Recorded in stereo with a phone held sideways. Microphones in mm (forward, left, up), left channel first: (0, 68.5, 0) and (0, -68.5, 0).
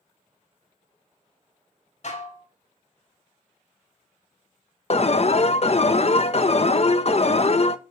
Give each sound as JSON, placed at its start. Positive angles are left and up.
{"t": 2.0, "sound": "dishes clattering", "side_deg": 55, "distance_m": 2.0}
{"t": 4.9, "sound": "an alarm", "side_deg": 50, "distance_m": 0.7}